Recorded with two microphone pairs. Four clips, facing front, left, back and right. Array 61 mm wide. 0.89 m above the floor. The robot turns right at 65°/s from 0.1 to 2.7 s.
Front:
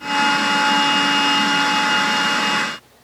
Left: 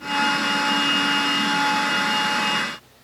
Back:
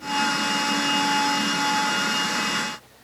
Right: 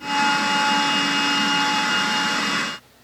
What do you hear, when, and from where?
Only background noise.